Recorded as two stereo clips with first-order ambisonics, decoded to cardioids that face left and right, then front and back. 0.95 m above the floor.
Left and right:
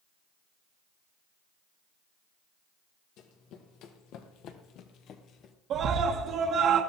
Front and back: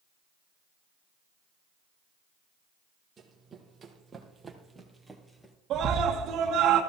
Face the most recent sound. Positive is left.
turn(degrees=-130)